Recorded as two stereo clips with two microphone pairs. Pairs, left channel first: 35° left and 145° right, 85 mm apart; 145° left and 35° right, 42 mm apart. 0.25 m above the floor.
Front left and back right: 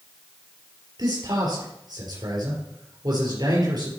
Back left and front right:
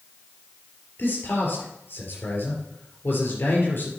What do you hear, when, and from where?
1.0 s a man speaking: 175° left, 4 m